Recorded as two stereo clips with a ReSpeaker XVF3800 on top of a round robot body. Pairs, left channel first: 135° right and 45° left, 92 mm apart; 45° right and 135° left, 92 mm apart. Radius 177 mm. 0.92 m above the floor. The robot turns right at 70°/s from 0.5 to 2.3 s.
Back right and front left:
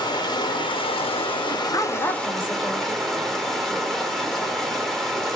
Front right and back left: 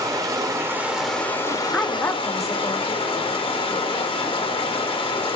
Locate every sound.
0.0 s running water: 175° right, 1.0 m; by 5.4 s 50° right, 1.0 m
1.7 s a woman speaking: 120° right, 0.7 m; by 3.1 s 80° right, 0.7 m